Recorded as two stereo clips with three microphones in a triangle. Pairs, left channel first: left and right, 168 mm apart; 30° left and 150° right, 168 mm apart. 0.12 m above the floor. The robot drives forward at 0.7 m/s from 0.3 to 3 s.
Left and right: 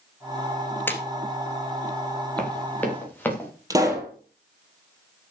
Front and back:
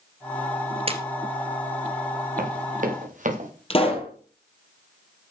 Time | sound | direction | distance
0.9 | a splash | 165° left | 1.8 m
2.4 | running footsteps | 170° left | 5.5 m
3.7 | a pop | 20° right | 3.5 m